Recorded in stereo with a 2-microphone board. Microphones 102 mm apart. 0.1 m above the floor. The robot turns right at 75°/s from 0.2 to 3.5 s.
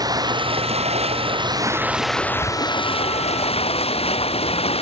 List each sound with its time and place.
0.0 s running water: 140° right; by 4.8 s 105° left